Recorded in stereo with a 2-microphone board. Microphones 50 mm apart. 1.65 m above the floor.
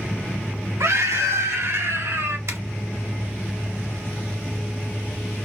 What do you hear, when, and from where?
0.8 s a scream: 80° right, 1.3 m; by 2.4 s 65° right (ahead or behind), 2.0 m
2.5 s a zipper: 65° right (ahead or behind), 0.8 m